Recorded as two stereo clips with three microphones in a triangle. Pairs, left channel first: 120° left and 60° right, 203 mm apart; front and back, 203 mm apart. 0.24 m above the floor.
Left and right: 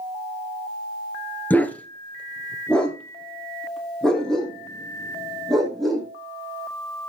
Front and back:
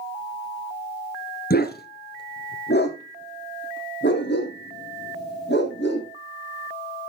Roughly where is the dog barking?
Ahead left.